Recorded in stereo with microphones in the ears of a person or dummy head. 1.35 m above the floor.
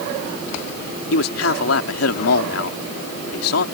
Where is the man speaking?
80° left.